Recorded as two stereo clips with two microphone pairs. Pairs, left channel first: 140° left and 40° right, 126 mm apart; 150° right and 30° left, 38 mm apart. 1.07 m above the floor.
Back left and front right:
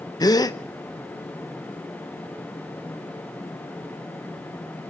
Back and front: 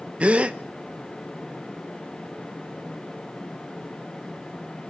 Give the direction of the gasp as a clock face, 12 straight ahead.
9 o'clock.